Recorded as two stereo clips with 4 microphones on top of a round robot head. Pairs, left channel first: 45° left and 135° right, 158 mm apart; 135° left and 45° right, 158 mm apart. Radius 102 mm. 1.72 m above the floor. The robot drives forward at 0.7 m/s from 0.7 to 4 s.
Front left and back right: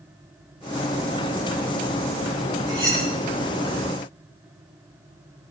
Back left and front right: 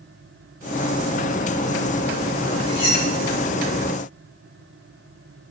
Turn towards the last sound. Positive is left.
turn(degrees=165)